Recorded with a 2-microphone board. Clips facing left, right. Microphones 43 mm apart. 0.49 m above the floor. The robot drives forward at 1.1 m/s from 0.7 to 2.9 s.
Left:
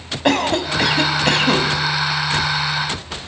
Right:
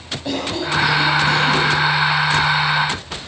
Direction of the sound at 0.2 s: 70° left (ahead or behind).